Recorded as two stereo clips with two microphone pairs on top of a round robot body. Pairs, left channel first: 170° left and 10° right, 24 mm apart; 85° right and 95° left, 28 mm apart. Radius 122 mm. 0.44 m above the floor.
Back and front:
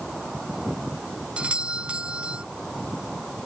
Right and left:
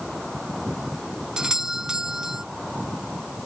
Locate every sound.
1.4 s a doorbell: 35° left